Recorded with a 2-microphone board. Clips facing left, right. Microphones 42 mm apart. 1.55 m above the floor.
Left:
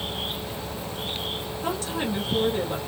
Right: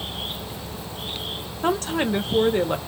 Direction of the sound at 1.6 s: 55° right (ahead or behind).